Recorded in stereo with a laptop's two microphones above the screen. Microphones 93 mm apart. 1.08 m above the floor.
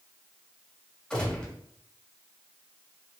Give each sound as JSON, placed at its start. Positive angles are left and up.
{"t": 1.1, "sound": "a gunshot", "side_deg": 10, "distance_m": 1.5}